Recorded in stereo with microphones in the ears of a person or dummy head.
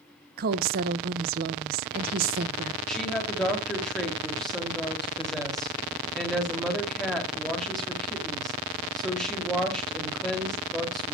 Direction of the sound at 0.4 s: 50° right (ahead or behind).